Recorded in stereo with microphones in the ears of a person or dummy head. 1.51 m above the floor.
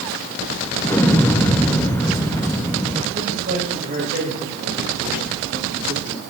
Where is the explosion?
10° left (ahead or behind), 0.8 m.